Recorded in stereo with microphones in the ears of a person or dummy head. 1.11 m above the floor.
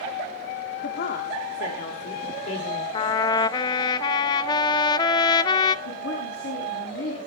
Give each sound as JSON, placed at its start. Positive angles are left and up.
{"t": 0.8, "sound": "a woman speaking", "side_deg": 55, "distance_m": 2.5}
{"t": 2.9, "sound": "a trumpet", "side_deg": 30, "distance_m": 0.9}
{"t": 5.8, "sound": "a woman speaking", "side_deg": 85, "distance_m": 8.5}